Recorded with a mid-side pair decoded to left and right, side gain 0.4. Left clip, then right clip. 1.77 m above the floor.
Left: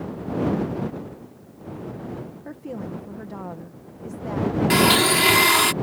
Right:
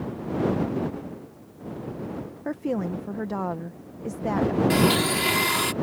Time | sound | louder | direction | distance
2.5 | a woman speaking | right 8 dB | 55° right | ?
4.7 | a blender | left 8 dB | 50° left | ?